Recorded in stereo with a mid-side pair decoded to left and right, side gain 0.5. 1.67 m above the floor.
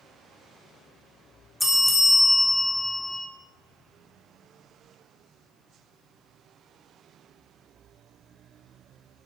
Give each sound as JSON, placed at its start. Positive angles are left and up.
{"t": 1.6, "sound": "a bell", "azimuth_deg": 10, "distance_m": 0.6}